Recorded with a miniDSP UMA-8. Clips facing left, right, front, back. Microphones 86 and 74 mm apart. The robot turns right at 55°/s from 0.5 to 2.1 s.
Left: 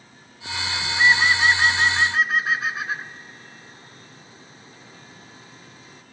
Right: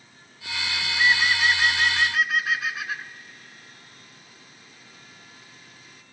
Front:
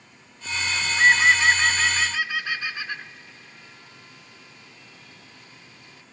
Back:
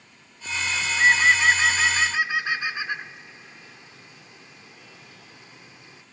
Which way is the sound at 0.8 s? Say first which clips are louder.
Left 4 dB, front 1 dB; 55° left.